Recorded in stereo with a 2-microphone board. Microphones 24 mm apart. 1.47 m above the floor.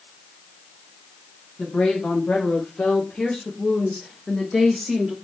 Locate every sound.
1.6 s a woman speaking: 80° left, 1.5 m; by 5.2 s 10° right (ahead or behind), 0.9 m